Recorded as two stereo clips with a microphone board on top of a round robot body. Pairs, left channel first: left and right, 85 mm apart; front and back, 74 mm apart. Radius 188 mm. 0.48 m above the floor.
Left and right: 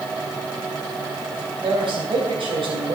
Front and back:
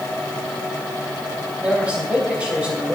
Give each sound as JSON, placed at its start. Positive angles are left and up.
{"t": 1.6, "sound": "a man speaking", "azimuth_deg": -105, "distance_m": 3.5}